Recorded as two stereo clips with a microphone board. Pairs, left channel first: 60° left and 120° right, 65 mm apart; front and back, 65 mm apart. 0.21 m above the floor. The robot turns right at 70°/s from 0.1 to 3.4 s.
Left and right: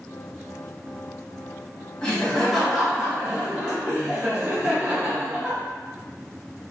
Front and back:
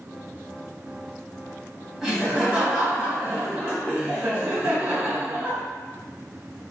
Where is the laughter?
110° left, 1.2 m; by 5.6 s 155° right, 1.2 m.